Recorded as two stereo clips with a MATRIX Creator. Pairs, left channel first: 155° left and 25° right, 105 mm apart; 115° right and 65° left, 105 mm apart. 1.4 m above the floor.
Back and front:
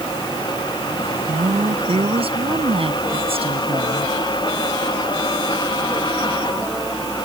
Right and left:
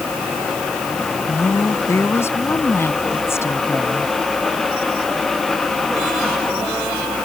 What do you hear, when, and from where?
1.3 s a woman speaking: 45° right